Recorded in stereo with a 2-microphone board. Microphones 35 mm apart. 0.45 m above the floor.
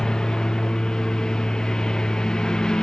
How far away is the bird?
No bird in this recording.